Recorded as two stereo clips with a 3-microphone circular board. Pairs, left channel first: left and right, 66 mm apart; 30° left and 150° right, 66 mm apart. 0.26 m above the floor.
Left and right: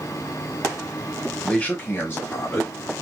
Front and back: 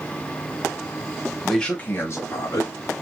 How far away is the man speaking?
About 0.9 m.